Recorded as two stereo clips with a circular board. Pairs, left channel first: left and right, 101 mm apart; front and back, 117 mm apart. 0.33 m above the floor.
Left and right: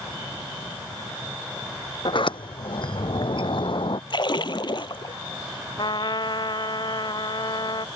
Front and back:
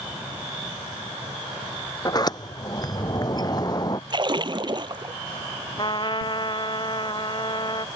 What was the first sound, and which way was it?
A sliding door, 55° left.